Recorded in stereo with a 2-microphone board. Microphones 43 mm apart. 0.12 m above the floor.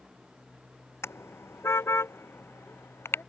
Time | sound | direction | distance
1.0 | a car horn | 75° left (ahead or behind) | ?